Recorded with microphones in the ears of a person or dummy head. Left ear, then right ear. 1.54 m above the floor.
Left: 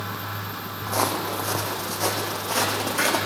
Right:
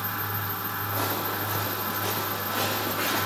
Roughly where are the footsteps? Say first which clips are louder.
Left 6 dB; left.